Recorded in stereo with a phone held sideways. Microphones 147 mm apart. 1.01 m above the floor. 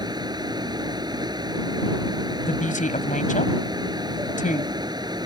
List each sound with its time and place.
0.0 s a fan: 30° right (ahead or behind)
2.5 s a woman speaking: 60° left (ahead or behind)